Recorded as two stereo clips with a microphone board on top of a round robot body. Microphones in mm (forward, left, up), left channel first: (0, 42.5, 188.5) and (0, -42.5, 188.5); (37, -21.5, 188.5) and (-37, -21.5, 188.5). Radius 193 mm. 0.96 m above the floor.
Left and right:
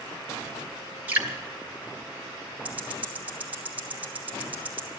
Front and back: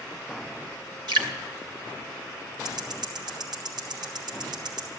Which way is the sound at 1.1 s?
160° right.